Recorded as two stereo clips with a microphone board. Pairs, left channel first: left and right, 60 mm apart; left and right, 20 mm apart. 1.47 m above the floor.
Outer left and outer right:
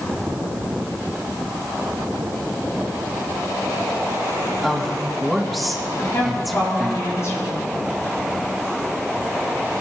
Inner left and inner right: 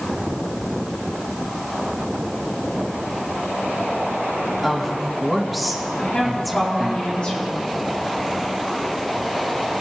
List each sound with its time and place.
4.6 s a woman speaking: centre (ahead or behind), 1.6 m
6.0 s a woman speaking: 50° left (ahead or behind), 4.5 m